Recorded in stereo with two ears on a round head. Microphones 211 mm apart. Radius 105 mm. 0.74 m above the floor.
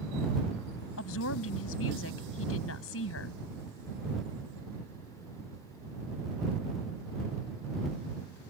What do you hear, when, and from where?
1.0 s a woman speaking: 60° left (ahead or behind)